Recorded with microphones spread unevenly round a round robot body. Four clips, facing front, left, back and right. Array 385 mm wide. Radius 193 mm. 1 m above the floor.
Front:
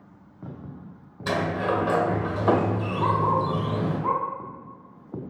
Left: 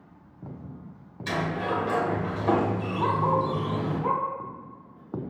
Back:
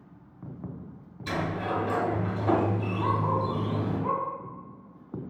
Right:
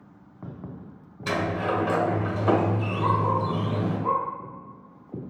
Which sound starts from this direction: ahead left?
A dog barking, at 3.0 s.